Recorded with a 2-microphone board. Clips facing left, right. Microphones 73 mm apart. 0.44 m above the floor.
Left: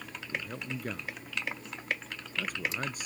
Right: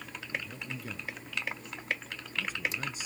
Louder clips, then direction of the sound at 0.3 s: Left 2 dB; 60° left (ahead or behind).